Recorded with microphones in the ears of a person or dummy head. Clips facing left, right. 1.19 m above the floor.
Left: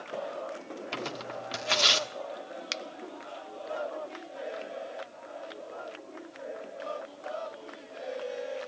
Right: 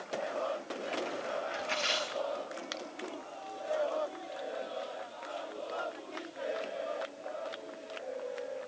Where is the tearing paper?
70° left (ahead or behind), 1.3 m.